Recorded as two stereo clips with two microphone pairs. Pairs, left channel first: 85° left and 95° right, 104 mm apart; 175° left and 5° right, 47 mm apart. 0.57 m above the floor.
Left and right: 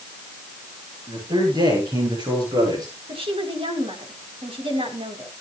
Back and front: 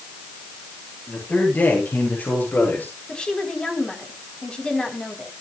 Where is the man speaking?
135° right, 10 m; by 3.0 s 140° right, 8 m.